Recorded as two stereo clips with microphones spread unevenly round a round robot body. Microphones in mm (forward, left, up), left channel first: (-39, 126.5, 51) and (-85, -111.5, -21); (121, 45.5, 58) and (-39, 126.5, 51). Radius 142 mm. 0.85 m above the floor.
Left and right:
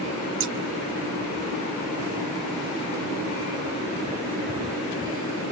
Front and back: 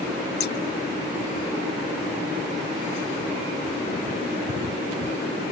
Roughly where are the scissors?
Ahead right.